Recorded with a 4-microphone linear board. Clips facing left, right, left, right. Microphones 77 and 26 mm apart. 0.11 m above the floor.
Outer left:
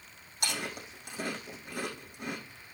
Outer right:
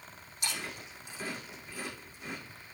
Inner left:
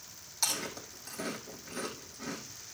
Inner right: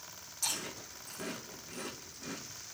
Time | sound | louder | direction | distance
0.4 | chewing | outer left 3 dB, inner left 4 dB | 65° left (ahead or behind) | 5.5 m